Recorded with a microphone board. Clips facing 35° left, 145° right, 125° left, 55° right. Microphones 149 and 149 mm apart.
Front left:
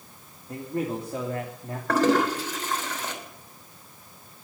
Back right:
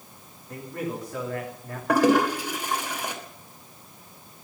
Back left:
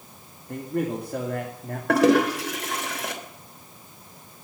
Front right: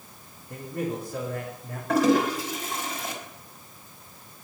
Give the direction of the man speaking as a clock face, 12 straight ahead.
9 o'clock.